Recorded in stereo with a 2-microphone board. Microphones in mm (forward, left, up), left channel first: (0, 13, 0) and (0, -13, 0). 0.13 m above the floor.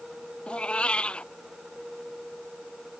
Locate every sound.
0.5 s a cat meowing: 50° left (ahead or behind)